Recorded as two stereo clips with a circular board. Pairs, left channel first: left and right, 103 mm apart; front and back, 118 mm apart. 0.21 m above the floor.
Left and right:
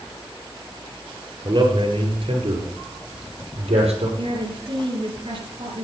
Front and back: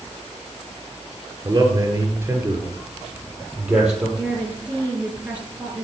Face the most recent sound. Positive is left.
turn(degrees=-105)